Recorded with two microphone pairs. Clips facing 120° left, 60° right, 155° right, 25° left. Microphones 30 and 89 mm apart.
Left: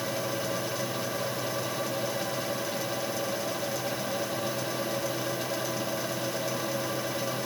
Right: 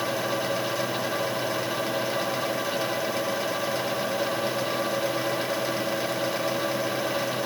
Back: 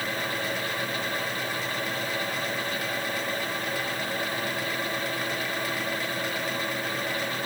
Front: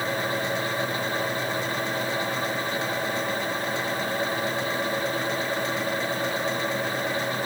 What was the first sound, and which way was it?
Only background noise.